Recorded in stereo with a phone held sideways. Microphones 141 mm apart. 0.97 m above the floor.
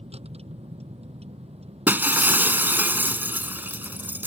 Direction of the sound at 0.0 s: 45° right (ahead or behind).